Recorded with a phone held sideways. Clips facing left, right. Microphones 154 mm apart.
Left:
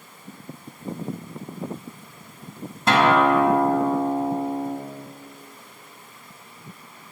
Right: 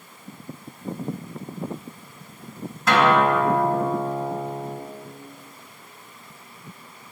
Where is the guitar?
30° left (ahead or behind), 1.3 m.